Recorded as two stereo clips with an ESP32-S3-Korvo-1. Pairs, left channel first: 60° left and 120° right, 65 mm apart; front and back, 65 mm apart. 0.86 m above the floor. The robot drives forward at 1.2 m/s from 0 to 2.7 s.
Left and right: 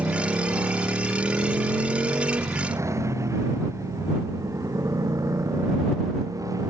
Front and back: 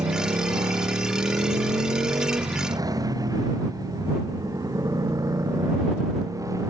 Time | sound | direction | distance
0.0 | a motorcycle | 175° right | ?